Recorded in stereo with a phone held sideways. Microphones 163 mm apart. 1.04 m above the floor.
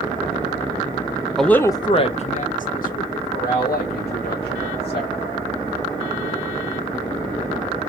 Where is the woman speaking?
Centre (ahead or behind), 0.5 m; by 5.1 s 80° left, 2 m.